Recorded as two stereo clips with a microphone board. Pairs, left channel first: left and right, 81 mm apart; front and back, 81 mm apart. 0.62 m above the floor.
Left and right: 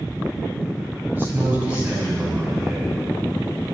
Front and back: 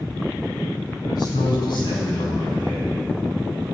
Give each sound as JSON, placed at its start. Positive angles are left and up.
{"t": 1.1, "sound": "a man speaking", "azimuth_deg": -25, "distance_m": 4.0}